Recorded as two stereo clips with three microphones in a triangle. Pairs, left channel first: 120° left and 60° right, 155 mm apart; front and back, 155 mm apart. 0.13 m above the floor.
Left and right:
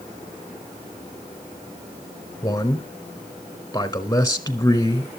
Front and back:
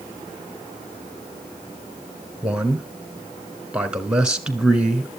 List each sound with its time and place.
2.4 s a man speaking: 110° left, 1.3 m